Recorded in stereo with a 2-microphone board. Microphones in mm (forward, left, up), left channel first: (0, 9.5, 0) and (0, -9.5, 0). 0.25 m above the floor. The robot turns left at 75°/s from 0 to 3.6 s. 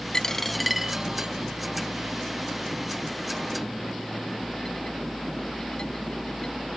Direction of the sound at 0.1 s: 35° left (ahead or behind).